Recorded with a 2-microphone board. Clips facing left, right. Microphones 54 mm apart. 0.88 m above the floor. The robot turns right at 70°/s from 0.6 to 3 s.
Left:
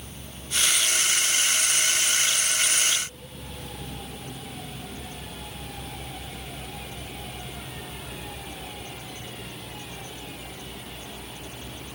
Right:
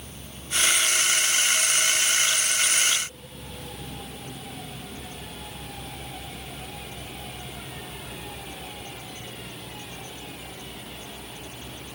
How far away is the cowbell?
I don't hear a cowbell.